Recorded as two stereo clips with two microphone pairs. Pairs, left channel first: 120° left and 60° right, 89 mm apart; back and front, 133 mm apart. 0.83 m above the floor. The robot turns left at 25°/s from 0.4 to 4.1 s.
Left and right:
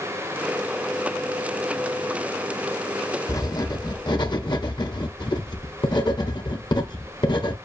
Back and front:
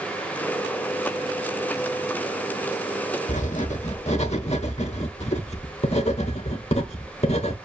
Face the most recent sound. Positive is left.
turn(degrees=150)